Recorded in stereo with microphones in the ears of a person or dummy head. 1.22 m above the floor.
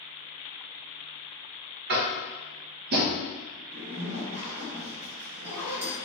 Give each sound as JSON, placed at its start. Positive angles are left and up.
{"t": 1.9, "sound": "tapping", "side_deg": -60, "distance_m": 0.8}
{"t": 3.7, "sound": "a zipper", "side_deg": -65, "distance_m": 1.3}